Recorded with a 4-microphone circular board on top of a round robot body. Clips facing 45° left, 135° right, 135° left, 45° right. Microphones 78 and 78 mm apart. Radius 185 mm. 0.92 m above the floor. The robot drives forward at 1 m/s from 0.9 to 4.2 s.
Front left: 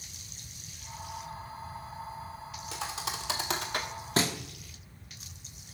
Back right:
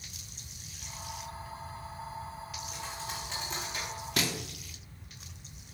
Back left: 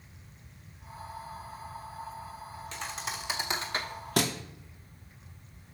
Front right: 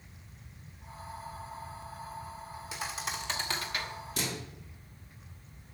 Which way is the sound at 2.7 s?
35° left.